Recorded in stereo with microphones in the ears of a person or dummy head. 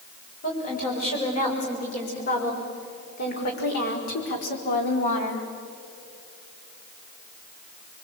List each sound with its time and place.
0.4 s a woman speaking: 40° left (ahead or behind), 7 m; by 5.5 s 60° left (ahead or behind), 3.5 m